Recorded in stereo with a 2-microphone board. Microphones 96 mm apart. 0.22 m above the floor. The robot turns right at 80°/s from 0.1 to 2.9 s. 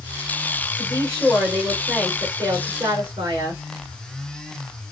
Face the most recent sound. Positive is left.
turn(degrees=-85)